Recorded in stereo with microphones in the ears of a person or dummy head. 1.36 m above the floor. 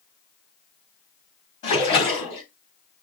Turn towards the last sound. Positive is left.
turn(degrees=35)  # may be behind; listen again after turning